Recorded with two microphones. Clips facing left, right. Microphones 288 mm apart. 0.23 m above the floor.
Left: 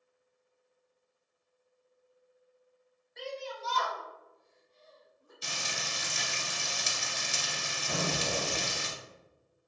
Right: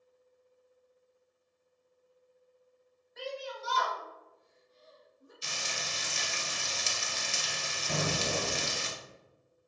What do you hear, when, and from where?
3.2 s a shout: 5° right (ahead or behind), 1.3 m; by 5.3 s 30° right (ahead or behind), 1.5 m
5.4 s frying: 60° left (ahead or behind), 0.7 m
7.9 s an explosion: 15° right (ahead or behind), 1.0 m